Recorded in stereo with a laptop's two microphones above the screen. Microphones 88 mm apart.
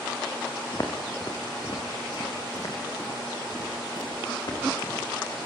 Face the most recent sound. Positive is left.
turn(degrees=50)  # may be behind; listen again after turning